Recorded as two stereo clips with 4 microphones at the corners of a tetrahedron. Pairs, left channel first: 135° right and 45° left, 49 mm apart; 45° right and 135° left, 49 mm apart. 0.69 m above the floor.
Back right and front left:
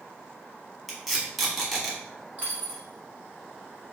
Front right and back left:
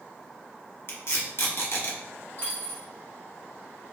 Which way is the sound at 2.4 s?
10° right.